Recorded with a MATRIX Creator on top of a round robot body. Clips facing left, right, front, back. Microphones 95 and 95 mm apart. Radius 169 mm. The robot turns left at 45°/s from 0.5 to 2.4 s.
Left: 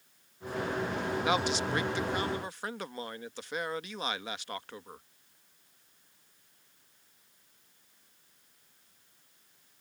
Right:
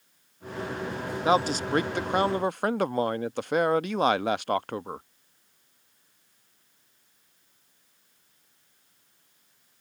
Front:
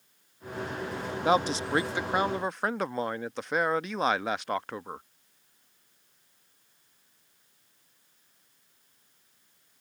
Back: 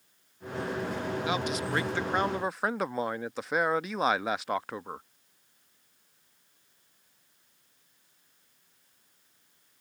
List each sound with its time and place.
1.2 s a man speaking: 40° right; by 5.1 s 95° right